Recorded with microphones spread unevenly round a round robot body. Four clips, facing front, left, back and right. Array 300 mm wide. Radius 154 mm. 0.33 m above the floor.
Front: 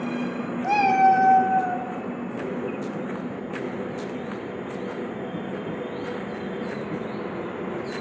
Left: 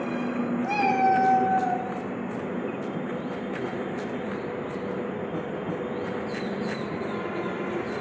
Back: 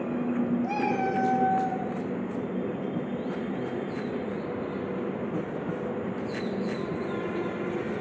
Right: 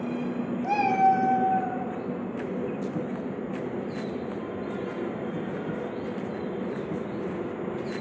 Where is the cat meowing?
10° left, 1.6 m; by 1.9 s 35° left, 2.5 m.